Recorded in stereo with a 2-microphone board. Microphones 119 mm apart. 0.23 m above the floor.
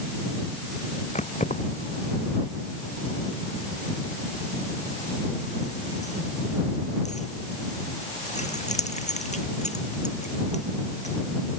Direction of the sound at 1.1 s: 75° left (ahead or behind).